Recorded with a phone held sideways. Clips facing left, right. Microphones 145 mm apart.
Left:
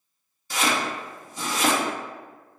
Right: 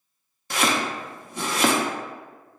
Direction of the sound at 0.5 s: 65° right (ahead or behind).